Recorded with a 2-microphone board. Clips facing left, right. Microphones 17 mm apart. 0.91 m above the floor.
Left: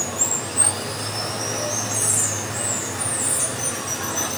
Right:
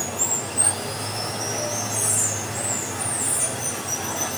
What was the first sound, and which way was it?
Running water, 65° left (ahead or behind).